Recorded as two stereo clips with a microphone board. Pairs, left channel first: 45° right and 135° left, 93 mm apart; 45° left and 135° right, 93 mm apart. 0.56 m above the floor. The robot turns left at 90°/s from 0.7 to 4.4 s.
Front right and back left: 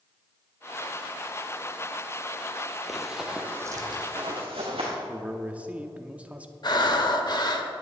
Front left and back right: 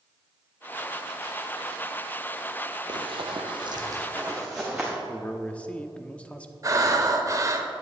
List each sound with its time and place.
2.9 s running footsteps: 135° right, 0.9 m; by 4.9 s 140° left, 3.5 m
5.1 s a man speaking: 95° left, 0.6 m
6.6 s breathing: 85° right, 0.9 m